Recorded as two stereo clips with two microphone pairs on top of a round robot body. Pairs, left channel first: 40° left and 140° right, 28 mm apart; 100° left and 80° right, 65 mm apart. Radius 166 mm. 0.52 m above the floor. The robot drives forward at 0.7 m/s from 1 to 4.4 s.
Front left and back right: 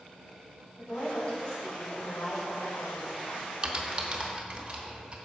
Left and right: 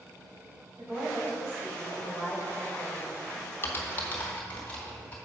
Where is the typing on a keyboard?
155° left, 0.7 m; by 5.2 s 165° left, 1.2 m.